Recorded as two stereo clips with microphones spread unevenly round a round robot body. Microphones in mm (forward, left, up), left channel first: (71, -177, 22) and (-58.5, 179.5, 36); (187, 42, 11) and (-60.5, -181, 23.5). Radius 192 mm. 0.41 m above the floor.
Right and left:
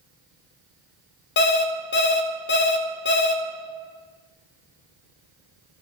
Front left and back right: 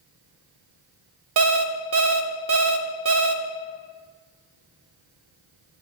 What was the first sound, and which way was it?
An alarm clock, 115° right.